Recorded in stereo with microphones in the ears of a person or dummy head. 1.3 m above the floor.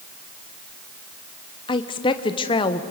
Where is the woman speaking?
20° left (ahead or behind), 0.9 m.